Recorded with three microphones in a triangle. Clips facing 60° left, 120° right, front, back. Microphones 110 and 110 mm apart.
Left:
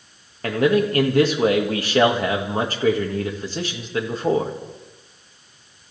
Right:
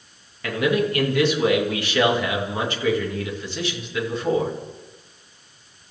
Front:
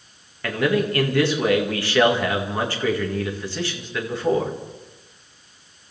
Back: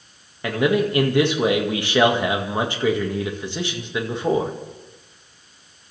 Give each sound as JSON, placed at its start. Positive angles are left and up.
{"t": 0.4, "sound": "a man speaking", "azimuth_deg": 110, "distance_m": 2.0}